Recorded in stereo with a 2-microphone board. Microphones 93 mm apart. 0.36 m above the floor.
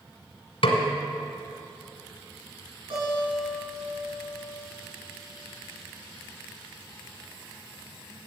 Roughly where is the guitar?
Right.